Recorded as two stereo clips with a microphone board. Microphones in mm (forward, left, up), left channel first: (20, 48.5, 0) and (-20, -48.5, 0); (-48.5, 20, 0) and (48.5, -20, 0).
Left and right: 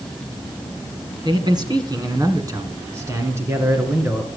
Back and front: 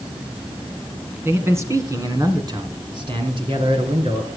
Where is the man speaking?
85° right, 2 m; by 4.3 s 45° right, 3 m.